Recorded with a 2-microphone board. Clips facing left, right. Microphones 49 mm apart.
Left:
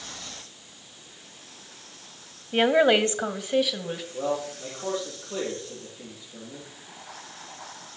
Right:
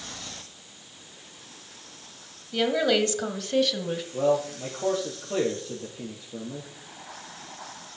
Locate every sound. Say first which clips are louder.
2.5 s a woman speaking: left 4 dB; 40° left (ahead or behind), 1.1 m; by 4.0 s 5° left (ahead or behind), 1.5 m
4.1 s a man speaking: right 6 dB; 55° right (ahead or behind), 6 m